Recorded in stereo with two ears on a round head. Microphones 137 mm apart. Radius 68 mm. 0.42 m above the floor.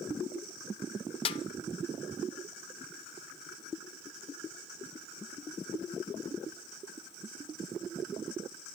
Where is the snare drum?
35° left (ahead or behind), 0.9 m.